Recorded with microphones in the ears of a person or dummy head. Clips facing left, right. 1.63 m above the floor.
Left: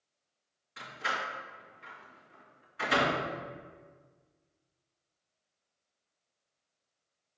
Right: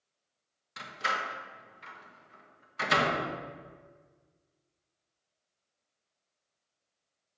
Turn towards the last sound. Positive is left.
turn(degrees=-65)  # may be behind; listen again after turning